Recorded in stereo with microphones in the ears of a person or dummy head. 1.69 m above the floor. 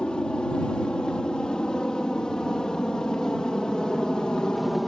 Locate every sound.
0.0 s an aircraft: 5° left (ahead or behind)